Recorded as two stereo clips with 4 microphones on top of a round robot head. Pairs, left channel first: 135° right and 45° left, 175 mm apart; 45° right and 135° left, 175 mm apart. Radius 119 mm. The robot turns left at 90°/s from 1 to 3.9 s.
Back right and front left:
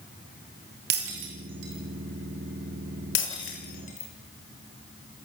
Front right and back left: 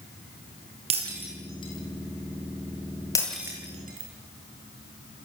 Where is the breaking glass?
75° left, 8.5 m; by 5.3 s 175° left, 8.5 m.